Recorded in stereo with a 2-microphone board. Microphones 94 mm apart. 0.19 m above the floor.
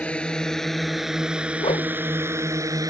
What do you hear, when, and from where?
0.0 s a drone: 15° left (ahead or behind); by 2.9 s 40° right (ahead or behind)
1.6 s a whoosh: 85° left